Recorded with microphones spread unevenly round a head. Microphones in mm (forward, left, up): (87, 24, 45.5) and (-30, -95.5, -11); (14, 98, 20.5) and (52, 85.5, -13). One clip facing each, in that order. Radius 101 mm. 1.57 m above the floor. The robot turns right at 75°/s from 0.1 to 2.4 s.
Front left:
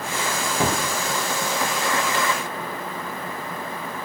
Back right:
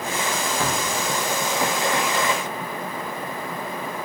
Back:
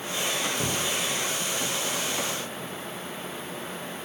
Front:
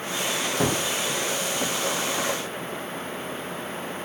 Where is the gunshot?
15° right, 0.7 m; by 0.8 s 5° left, 0.7 m.